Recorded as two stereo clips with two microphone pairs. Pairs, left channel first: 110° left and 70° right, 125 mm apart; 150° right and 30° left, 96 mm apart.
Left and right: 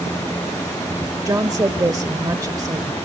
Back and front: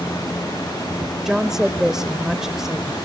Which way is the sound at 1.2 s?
55° right.